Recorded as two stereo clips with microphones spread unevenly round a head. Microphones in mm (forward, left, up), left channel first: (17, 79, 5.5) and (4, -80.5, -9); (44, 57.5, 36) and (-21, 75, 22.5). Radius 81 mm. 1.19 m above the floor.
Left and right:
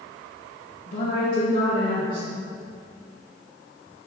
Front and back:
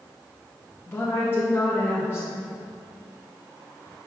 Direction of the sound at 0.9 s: 45° left.